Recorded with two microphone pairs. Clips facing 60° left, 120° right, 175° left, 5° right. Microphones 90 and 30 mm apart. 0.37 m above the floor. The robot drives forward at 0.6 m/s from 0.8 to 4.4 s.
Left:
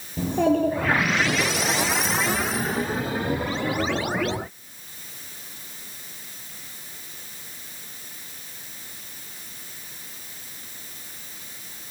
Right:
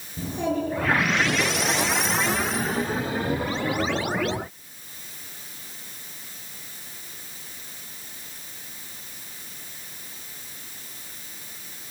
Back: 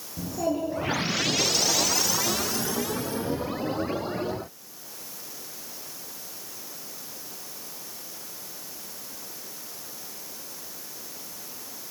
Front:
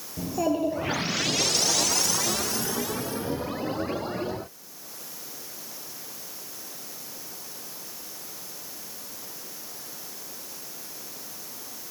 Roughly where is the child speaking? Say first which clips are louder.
Left 6 dB, front 2 dB; ahead left.